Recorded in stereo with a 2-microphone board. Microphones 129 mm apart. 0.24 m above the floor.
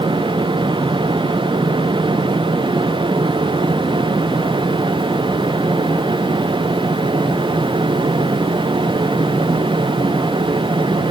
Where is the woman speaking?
I don't hear a woman speaking.